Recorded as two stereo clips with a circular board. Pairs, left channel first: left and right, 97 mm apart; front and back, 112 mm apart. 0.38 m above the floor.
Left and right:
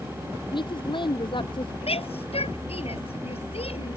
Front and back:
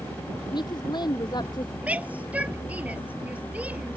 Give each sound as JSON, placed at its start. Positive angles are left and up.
{"t": 0.5, "sound": "a woman speaking", "azimuth_deg": 50}
{"t": 1.8, "sound": "a shout", "azimuth_deg": 100}